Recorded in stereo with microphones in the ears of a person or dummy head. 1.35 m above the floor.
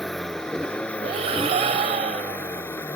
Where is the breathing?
30° right (ahead or behind).